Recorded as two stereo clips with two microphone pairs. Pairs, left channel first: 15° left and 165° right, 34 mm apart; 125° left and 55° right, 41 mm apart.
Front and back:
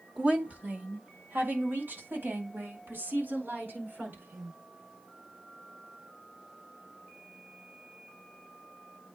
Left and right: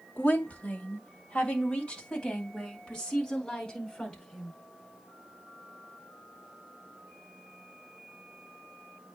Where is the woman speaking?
150° left, 1.5 m; by 4.6 s 160° right, 6.5 m.